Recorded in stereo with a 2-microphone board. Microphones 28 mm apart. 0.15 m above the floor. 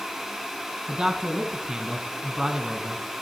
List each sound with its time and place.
0.9 s a man speaking: 25° right (ahead or behind), 1.3 m